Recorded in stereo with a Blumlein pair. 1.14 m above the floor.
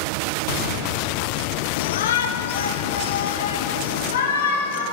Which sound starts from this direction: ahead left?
A shout, at 1.8 s.